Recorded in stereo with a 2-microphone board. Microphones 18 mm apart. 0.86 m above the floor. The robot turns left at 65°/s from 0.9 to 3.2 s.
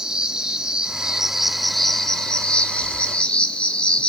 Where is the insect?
130° right, 0.9 m; by 4.1 s 80° left, 0.9 m.